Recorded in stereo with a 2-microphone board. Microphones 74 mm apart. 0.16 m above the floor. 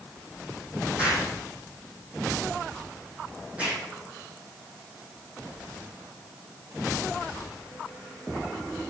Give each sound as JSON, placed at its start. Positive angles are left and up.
{"t": 1.0, "sound": "an explosion", "side_deg": -20, "distance_m": 4.5}